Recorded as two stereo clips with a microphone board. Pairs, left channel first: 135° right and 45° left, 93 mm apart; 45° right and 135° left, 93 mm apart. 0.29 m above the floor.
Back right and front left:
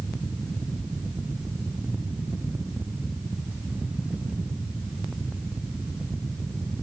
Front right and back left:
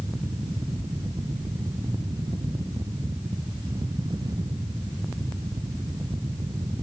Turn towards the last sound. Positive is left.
No sound to turn to.